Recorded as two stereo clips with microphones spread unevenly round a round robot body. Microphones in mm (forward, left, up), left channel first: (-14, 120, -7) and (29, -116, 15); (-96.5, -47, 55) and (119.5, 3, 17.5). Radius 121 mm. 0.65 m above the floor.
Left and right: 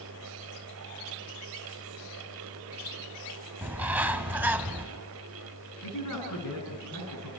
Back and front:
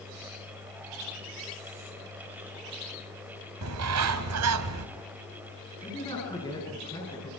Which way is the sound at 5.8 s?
120° left.